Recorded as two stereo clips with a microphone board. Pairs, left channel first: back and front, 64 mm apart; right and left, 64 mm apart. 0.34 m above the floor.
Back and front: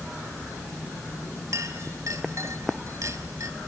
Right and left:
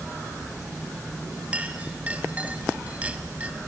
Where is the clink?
25° left, 1.3 m.